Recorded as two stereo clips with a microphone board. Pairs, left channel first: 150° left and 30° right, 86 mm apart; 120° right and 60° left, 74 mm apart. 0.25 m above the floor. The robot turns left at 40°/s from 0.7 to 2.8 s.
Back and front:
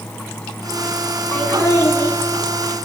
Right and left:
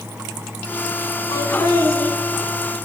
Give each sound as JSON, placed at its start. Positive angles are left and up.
{"t": 1.3, "sound": "laughter", "azimuth_deg": -140, "distance_m": 2.0}